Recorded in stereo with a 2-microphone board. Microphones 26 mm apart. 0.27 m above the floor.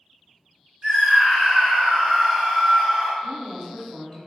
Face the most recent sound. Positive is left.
turn(degrees=5)  # may be behind; listen again after turning